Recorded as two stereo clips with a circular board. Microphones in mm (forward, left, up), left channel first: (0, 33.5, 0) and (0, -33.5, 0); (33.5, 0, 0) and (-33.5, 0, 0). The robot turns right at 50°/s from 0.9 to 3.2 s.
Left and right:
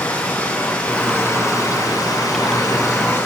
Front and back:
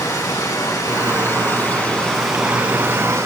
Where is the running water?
20° left, 3.5 m; by 3.3 s 135° left, 3.5 m.